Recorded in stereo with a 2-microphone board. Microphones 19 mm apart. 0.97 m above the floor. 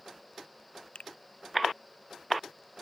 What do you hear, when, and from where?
0.9 s a finger snap: 60° left (ahead or behind)